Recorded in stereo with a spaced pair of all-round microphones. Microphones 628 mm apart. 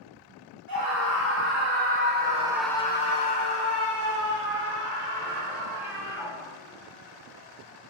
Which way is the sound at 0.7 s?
35° right (ahead or behind).